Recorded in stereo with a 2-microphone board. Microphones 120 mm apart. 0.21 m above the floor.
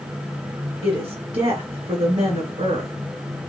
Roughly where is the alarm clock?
No alarm clock in this recording.